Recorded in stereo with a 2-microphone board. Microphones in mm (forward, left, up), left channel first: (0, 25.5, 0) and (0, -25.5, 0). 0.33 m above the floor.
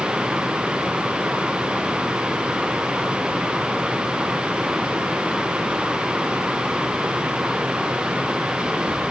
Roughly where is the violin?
I don't hear a violin.